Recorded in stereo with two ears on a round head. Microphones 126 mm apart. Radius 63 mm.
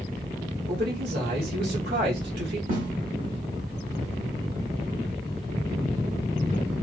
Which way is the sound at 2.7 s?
60° right (ahead or behind).